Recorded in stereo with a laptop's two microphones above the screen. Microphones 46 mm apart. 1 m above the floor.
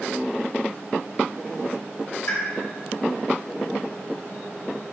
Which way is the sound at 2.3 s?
70° left (ahead or behind).